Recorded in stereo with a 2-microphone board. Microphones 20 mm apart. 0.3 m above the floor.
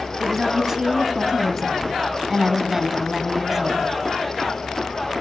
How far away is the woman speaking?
About 2.5 m.